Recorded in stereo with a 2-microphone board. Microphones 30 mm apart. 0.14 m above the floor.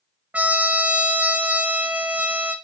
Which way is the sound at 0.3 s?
55° right (ahead or behind).